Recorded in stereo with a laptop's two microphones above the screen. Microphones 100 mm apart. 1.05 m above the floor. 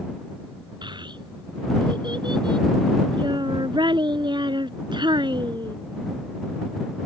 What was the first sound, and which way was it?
A child speaking, 50° right (ahead or behind).